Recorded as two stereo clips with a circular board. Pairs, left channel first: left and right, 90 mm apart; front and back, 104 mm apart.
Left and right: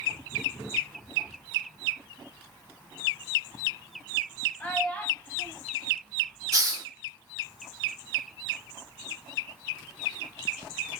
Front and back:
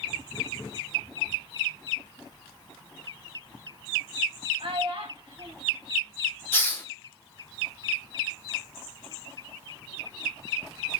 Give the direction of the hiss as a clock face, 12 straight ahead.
2 o'clock.